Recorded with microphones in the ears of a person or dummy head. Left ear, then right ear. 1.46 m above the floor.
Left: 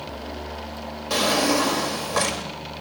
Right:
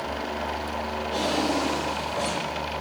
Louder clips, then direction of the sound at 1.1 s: Left 6 dB; 65° left (ahead or behind).